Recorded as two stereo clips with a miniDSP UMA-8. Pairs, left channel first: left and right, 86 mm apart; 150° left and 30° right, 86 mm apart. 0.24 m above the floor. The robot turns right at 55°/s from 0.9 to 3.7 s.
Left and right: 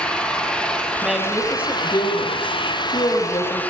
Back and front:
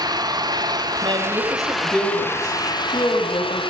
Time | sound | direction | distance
0.0 | an engine running | 10° left | 3 m
1.0 | a woman speaking | 10° right | 8 m